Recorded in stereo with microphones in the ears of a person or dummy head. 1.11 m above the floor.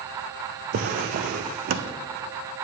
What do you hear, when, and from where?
0.7 s a drawer: 50° right (ahead or behind), 0.6 m